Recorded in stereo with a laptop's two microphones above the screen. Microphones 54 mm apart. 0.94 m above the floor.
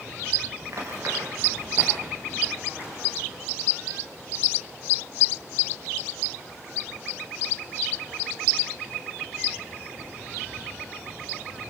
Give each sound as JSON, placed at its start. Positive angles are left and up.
{"t": 0.6, "sound": "running footsteps", "side_deg": -60, "distance_m": 6.5}